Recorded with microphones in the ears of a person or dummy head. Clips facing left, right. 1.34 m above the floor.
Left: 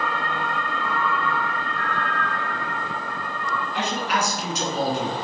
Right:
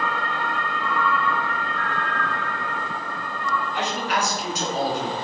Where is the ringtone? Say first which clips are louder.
Right 2 dB; 35° right (ahead or behind), 0.9 m.